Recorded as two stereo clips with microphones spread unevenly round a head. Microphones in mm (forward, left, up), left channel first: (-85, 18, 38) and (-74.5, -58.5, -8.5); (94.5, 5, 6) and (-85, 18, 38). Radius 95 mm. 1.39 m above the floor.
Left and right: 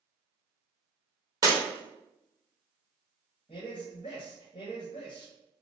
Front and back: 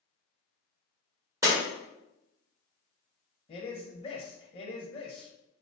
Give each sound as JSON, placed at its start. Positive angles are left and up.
{"t": 1.4, "sound": "breaking glass", "azimuth_deg": -145, "distance_m": 1.2}
{"t": 3.5, "sound": "a man speaking", "azimuth_deg": 60, "distance_m": 0.6}